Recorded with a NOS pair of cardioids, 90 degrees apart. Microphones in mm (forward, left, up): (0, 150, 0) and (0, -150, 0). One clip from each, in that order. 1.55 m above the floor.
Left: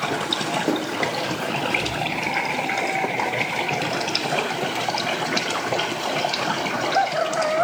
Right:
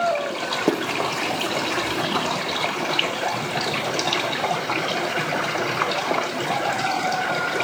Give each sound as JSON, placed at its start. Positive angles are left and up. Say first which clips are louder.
{"t": 0.7, "sound": "running footsteps", "louder": "right 1 dB", "azimuth_deg": -50, "distance_m": 5.0}